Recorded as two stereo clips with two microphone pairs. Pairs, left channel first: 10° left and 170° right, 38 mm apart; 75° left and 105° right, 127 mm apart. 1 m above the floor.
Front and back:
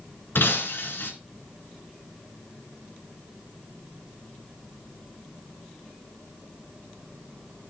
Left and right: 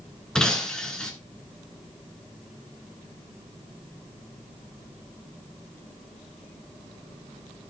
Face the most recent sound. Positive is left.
turn(degrees=-10)